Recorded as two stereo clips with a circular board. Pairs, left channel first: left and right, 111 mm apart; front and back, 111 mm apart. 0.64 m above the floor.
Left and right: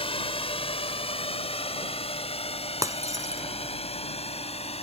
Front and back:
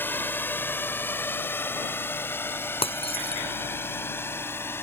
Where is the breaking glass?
30° right.